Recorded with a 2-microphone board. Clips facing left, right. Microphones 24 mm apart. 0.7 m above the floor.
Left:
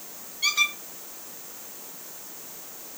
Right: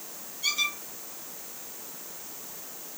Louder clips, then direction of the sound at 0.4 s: Left 4 dB; 65° left (ahead or behind).